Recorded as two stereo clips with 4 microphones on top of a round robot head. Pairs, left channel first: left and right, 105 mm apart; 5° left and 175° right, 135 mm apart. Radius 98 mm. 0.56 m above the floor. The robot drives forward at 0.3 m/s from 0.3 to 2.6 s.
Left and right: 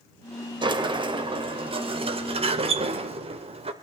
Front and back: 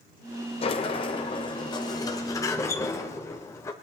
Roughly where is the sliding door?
Ahead right.